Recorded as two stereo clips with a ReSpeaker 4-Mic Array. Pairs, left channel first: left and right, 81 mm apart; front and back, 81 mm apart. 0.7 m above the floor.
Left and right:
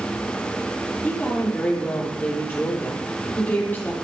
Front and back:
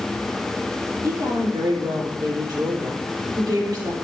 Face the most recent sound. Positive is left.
turn(degrees=155)